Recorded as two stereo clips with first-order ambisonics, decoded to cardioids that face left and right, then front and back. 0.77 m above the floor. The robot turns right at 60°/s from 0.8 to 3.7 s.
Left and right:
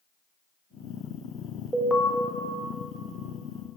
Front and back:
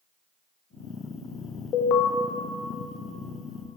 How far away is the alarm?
About 1.0 m.